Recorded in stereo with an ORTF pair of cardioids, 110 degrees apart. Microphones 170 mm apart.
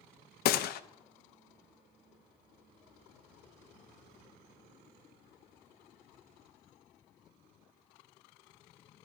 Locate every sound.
0.5 s a gunshot: 60° left, 0.5 m